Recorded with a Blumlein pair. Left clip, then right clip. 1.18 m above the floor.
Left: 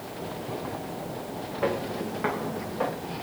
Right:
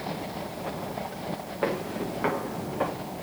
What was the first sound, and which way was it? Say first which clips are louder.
Footsteps: left 1 dB; 10° right.